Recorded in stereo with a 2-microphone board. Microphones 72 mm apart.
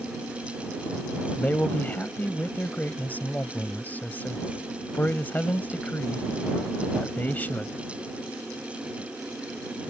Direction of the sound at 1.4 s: 25° left (ahead or behind).